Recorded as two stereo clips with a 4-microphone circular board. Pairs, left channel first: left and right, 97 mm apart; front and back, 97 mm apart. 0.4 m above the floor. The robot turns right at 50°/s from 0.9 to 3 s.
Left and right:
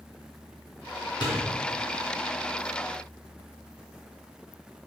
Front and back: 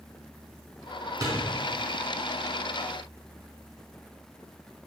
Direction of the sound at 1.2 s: 125° left.